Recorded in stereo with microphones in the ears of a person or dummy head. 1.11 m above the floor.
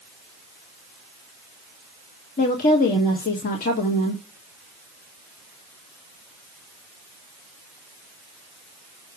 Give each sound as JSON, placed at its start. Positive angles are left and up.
{"t": 2.4, "sound": "a woman speaking", "side_deg": 45, "distance_m": 1.6}